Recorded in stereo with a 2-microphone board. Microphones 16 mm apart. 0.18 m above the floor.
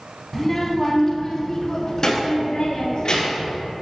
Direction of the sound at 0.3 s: Centre (ahead or behind).